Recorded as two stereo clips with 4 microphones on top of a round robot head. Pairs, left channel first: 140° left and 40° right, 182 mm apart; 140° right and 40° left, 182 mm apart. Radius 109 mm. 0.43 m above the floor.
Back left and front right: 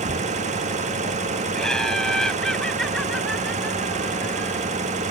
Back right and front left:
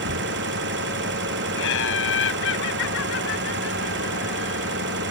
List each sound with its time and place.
0.0 s an engine running: 15° left
1.6 s laughter: 135° right